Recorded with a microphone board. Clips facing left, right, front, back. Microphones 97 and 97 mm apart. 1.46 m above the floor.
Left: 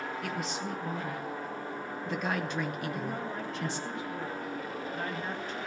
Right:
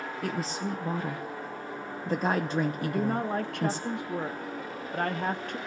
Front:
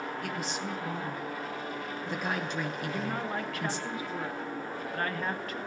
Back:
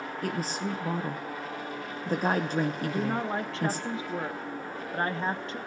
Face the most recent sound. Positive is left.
turn(degrees=-115)